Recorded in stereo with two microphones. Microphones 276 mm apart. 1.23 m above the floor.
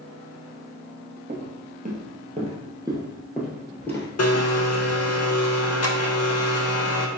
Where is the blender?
60° left (ahead or behind), 0.6 m.